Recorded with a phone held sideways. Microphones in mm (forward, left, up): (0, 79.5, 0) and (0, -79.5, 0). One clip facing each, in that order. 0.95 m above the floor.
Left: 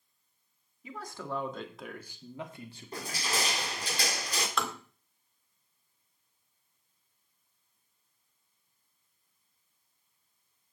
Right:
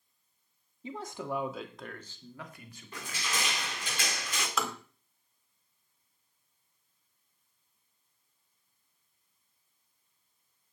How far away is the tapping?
About 1.9 m.